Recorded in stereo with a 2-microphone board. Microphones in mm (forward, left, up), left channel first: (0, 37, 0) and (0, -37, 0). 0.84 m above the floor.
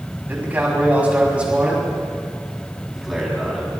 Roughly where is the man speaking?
Right.